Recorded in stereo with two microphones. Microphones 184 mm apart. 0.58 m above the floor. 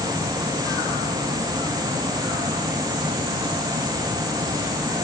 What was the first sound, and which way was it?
Only background noise.